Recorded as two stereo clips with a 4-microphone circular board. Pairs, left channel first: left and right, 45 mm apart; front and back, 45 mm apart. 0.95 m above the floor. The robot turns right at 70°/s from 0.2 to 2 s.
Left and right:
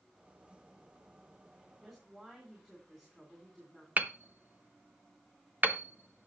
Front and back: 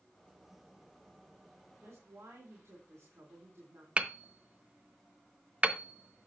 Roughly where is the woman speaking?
Behind.